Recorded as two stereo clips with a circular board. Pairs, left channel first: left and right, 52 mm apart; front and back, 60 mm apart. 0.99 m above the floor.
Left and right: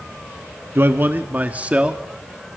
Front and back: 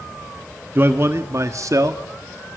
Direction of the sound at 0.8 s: 130° right.